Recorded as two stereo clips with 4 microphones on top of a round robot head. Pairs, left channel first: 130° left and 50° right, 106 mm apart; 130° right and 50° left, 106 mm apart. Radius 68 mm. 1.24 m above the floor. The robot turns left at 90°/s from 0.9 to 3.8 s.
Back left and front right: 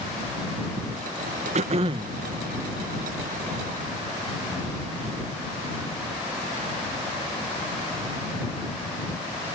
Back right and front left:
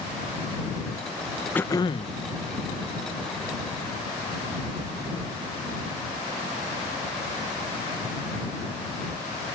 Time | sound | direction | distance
1.6 | throat clearing | 55° right | ?